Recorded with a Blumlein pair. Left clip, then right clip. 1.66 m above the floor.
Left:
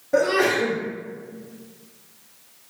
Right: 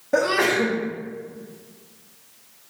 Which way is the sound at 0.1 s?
15° right.